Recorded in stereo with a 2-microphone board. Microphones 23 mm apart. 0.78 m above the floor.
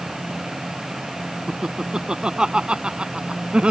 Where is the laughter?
35° right (ahead or behind); by 3.7 s 50° right (ahead or behind).